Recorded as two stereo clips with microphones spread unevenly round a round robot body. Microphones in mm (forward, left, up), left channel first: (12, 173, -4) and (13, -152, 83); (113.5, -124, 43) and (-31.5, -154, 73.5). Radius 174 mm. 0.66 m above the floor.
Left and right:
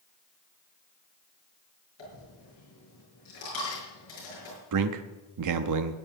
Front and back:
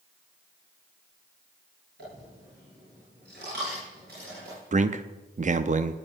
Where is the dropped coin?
140° left, 6.5 m.